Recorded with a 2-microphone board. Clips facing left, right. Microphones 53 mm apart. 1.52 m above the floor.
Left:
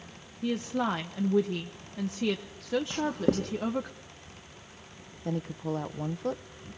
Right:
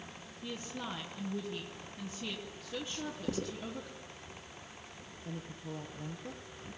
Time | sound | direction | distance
0.4 | a woman speaking | 80° left | 1.1 m
2.9 | writing | 70° left (ahead or behind) | 1.9 m
5.2 | a woman speaking | 85° left | 1.0 m